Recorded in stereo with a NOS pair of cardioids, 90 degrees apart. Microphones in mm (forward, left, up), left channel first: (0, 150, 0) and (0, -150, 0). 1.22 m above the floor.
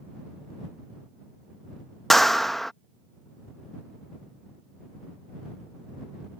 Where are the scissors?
No scissors in this recording.